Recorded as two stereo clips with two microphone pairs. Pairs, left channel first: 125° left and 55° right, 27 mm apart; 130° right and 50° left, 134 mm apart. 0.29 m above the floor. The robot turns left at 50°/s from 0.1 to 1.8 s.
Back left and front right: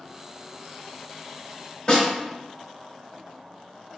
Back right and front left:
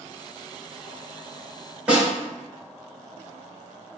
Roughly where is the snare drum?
Behind left.